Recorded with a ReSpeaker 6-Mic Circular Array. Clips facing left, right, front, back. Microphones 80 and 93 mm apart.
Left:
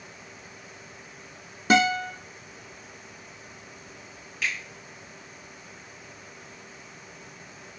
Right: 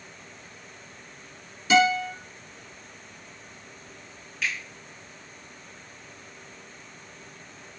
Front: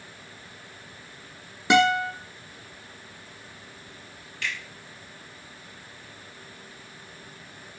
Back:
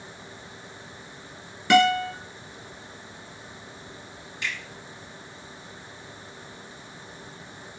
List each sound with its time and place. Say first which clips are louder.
1.7 s a guitar: right 1 dB, back 1 dB; 65° left, 0.7 m
4.4 s a finger snap: even, even; straight behind, 1.3 m